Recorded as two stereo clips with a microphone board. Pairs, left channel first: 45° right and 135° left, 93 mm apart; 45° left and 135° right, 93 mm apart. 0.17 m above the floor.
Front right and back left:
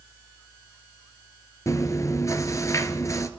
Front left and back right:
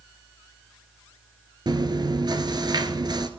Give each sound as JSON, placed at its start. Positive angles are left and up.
{"t": 1.7, "sound": "chewing", "azimuth_deg": -100, "distance_m": 1.0}